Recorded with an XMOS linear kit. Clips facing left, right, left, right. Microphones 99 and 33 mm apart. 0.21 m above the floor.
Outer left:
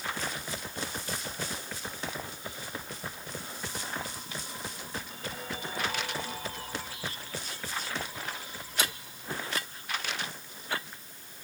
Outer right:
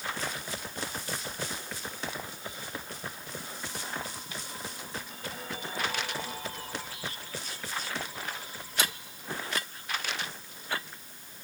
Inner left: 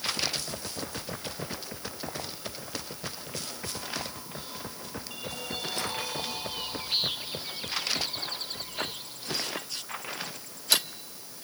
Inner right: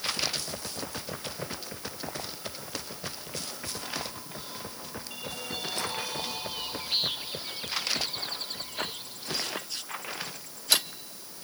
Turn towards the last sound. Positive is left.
No sound to turn to.